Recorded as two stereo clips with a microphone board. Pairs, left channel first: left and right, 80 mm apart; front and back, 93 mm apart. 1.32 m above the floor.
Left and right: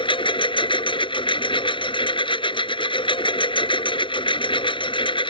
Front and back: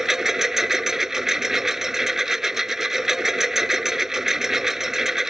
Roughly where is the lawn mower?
Left.